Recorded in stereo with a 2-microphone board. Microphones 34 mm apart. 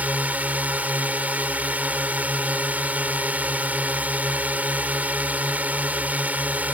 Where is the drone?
55° right (ahead or behind).